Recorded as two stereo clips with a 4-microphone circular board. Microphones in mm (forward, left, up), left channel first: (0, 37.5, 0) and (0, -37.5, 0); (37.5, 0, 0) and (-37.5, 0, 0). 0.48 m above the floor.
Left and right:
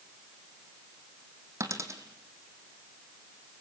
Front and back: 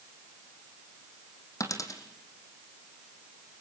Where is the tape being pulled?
No tape being pulled in this recording.